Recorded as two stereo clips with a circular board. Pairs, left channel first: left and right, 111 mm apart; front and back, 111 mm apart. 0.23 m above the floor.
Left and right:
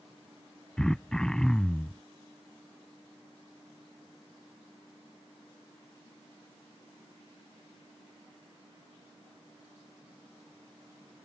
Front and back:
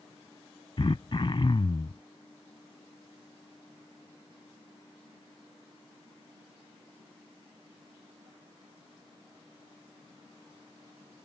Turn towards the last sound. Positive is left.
turn(degrees=5)